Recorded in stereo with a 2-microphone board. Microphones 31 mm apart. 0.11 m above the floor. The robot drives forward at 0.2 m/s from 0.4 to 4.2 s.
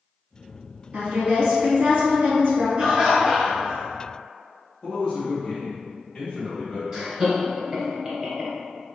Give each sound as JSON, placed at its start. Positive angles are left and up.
{"t": 0.9, "sound": "a woman speaking", "side_deg": -50, "distance_m": 1.9}
{"t": 2.8, "sound": "laughter", "side_deg": -20, "distance_m": 1.5}
{"t": 4.8, "sound": "a man speaking", "side_deg": 10, "distance_m": 1.7}
{"t": 6.9, "sound": "laughter", "side_deg": -25, "distance_m": 1.8}